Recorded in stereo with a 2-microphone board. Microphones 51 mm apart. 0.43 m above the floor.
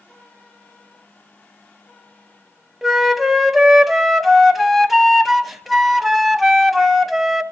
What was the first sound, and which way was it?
A flute, 5° right (ahead or behind).